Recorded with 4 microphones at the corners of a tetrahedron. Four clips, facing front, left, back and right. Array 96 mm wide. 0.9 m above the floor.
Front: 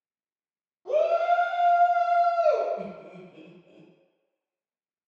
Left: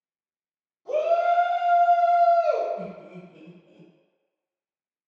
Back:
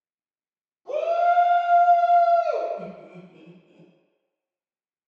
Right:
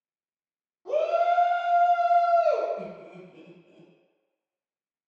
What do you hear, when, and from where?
0.8 s a shout: 50° right, 1.6 m; by 2.7 s 5° right, 1.2 m
2.8 s laughter: 25° left, 1.2 m